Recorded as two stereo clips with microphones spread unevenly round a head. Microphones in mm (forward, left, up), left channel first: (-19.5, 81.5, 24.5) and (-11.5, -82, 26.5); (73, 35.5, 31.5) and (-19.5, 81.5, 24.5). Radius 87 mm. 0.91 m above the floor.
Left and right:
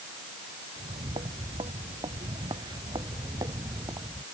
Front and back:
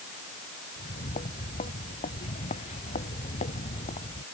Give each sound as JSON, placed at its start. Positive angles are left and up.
{"t": 0.8, "sound": "footsteps", "azimuth_deg": -25}